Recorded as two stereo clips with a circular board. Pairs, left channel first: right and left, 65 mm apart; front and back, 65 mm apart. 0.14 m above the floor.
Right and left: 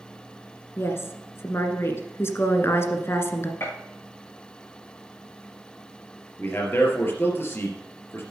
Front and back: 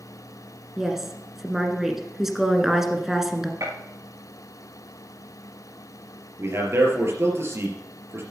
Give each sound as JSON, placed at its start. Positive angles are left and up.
{"t": 0.8, "sound": "a woman speaking", "azimuth_deg": -100, "distance_m": 1.5}
{"t": 3.6, "sound": "a gunshot", "azimuth_deg": -145, "distance_m": 5.5}
{"t": 6.4, "sound": "a man speaking", "azimuth_deg": -140, "distance_m": 3.0}